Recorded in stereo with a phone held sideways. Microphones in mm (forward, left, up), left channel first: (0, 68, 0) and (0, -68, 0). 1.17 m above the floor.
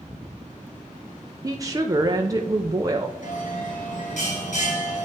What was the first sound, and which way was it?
A woman speaking, 25° right (ahead or behind).